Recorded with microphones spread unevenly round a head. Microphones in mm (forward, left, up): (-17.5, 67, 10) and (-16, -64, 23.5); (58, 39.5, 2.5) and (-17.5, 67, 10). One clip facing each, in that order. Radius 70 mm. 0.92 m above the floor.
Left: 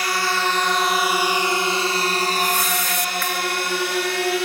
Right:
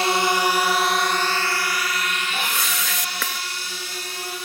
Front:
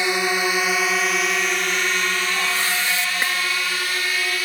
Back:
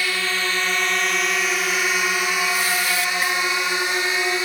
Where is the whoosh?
90° right.